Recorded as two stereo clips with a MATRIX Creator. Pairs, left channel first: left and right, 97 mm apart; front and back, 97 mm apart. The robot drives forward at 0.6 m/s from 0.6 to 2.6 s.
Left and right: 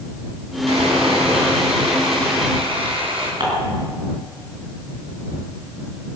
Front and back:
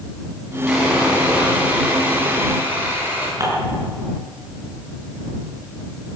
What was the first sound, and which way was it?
Sawing, 95° right.